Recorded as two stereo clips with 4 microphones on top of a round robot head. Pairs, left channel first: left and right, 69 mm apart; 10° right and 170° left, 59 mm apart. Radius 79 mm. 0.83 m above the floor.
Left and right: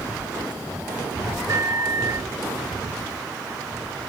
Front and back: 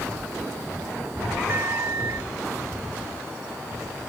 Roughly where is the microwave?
Behind right.